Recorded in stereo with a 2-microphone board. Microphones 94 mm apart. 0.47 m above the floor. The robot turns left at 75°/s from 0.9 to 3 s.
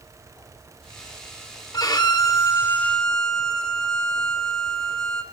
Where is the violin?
105° left, 1.1 m; by 5.2 s 10° left, 1.1 m.